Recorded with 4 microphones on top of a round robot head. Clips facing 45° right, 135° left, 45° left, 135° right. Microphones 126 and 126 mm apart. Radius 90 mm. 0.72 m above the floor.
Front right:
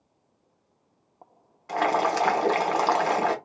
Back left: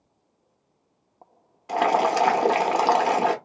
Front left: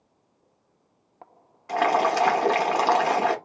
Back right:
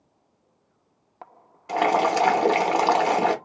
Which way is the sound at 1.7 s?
170° right.